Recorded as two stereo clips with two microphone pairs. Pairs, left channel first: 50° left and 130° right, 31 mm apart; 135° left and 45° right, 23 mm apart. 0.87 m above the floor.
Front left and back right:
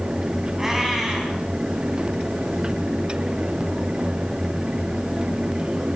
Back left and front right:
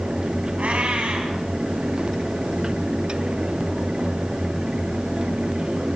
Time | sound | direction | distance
0.6 | a cat meowing | 55° right | 3.5 m